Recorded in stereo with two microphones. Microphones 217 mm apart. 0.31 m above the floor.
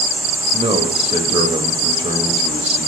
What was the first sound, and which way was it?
A man speaking, 30° right (ahead or behind).